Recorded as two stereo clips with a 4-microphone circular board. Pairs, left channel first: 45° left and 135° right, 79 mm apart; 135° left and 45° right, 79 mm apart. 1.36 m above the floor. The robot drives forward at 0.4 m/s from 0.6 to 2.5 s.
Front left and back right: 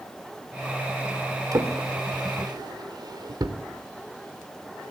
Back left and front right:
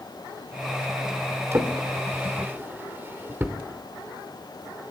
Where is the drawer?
100° right, 2.5 m; by 3.6 s 105° right, 2.5 m.